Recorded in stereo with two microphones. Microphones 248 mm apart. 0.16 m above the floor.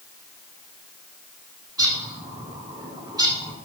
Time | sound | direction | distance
1.8 | a bird | 15° right (ahead or behind) | 0.6 m